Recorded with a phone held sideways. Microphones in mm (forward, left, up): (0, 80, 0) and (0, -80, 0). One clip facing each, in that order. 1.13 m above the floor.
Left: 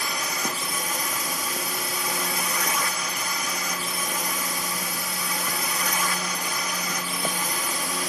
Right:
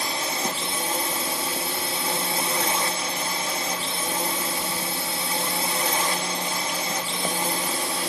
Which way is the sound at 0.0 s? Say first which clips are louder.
Right 2 dB; 30° right (ahead or behind).